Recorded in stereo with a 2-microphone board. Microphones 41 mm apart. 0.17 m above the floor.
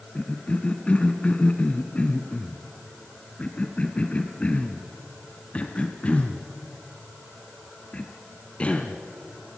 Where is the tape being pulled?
I don't hear tape being pulled.